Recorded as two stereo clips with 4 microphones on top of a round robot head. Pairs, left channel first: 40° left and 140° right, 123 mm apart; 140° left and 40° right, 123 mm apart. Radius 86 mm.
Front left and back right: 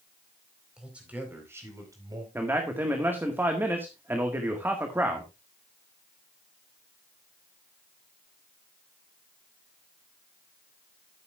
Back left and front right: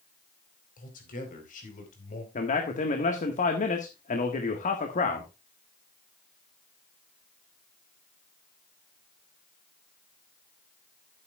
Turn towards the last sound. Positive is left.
turn(degrees=150)